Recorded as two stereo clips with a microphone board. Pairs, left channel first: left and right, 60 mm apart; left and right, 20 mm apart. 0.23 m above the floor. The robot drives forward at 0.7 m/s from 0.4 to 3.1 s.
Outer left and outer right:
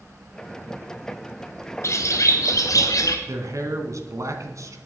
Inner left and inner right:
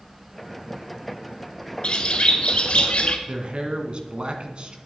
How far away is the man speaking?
About 1.9 m.